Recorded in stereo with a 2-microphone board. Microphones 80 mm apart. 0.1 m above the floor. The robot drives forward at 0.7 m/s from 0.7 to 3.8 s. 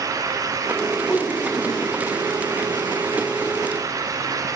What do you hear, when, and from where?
1.0 s a whoosh: 5° left (ahead or behind), 3.5 m; by 1.9 s 10° left (ahead or behind), 3 m